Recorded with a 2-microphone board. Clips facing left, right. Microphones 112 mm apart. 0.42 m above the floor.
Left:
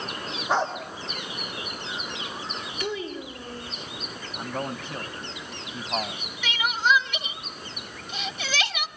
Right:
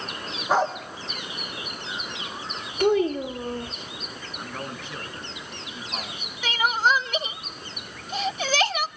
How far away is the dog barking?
About 5 m.